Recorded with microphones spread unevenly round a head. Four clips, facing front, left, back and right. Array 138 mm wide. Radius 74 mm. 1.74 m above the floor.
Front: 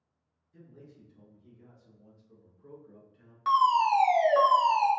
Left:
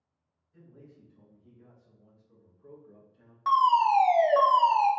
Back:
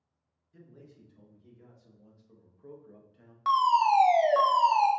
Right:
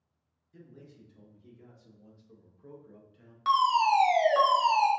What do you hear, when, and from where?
0.5 s a man speaking: 120° right, 2 m; by 3.4 s 160° left, 1.0 m
3.5 s a fire alarm: 155° left, 1.3 m